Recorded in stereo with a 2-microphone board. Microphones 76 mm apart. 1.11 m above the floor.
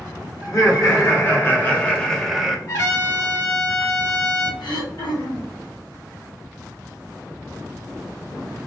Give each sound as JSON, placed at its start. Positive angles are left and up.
{"t": 0.4, "sound": "laughter", "side_deg": 45, "distance_m": 1.4}
{"t": 2.7, "sound": "a trumpet", "side_deg": 55, "distance_m": 1.2}
{"t": 4.6, "sound": "throat clearing", "side_deg": 85, "distance_m": 0.9}